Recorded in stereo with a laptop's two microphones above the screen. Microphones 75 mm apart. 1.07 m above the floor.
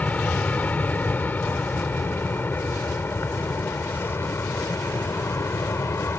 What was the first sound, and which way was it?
An aircraft, 20° left (ahead or behind).